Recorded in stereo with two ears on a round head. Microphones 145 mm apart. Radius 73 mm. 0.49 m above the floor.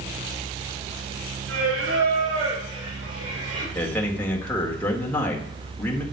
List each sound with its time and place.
1.5 s singing: 85° right, 5 m
3.8 s a man speaking: 10° left (ahead or behind), 1.6 m